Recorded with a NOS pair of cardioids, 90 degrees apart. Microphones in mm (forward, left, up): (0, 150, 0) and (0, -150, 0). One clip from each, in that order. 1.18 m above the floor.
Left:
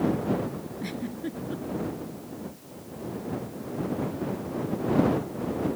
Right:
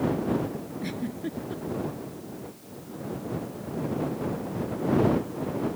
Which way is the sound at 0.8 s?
Straight ahead.